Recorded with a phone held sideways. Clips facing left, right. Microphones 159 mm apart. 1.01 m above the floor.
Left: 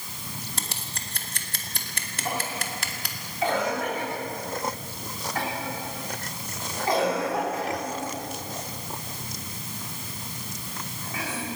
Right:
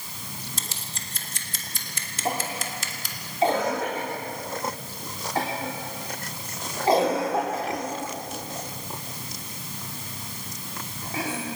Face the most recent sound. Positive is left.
turn(degrees=-30)  # may be behind; listen again after turning